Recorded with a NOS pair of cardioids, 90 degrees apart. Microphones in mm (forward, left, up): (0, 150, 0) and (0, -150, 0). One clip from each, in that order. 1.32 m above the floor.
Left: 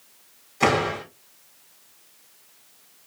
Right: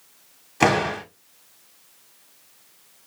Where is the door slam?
50° right, 2 m.